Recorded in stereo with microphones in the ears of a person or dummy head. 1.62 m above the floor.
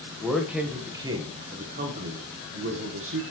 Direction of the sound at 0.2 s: 5° left (ahead or behind).